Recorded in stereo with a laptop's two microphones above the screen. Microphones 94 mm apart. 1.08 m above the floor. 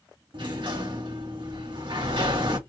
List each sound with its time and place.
0.3 s a sliding door: 65° right (ahead or behind), 2 m